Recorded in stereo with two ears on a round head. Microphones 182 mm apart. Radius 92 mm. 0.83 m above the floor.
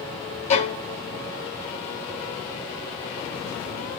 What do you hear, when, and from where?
0.5 s a violin: 35° left (ahead or behind), 3.5 m